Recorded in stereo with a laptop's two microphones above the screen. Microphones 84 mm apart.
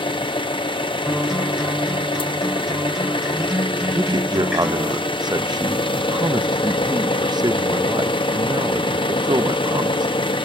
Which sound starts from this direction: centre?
A guitar, at 1.1 s.